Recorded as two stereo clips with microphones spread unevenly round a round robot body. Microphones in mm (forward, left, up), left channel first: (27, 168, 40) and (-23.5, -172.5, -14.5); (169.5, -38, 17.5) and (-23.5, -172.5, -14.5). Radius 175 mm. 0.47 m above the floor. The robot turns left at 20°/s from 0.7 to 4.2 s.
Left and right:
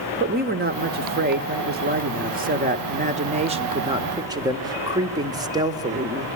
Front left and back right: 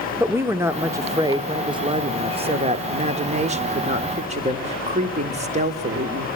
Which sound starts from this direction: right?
A woman speaking, at 0.2 s.